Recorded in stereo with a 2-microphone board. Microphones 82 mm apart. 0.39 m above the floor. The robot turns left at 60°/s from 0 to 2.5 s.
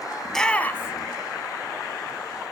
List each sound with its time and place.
0.2 s a shout: centre (ahead or behind), 1.3 m; by 1.1 s 40° left (ahead or behind), 1.3 m